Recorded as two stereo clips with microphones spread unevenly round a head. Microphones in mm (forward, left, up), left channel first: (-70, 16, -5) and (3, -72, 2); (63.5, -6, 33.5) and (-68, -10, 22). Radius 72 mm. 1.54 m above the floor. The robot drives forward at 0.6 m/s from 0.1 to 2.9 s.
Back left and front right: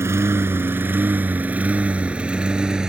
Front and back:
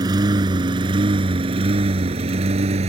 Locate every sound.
0.0 s a lawn mower: 115° right; by 2.9 s 135° right